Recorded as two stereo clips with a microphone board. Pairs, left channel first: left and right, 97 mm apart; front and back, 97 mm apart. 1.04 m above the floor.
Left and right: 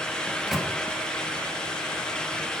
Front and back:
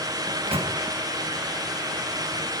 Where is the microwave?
Straight behind, 1.2 m.